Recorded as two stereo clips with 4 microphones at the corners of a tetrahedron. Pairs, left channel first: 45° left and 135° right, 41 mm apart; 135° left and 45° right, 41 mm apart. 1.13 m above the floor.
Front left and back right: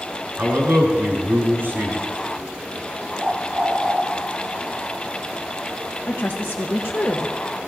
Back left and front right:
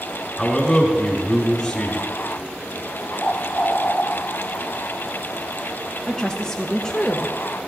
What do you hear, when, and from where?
0.4 s a man speaking: 145° right, 4 m
3.2 s a bird: 175° left, 1.1 m
6.1 s a woman speaking: 60° left, 0.9 m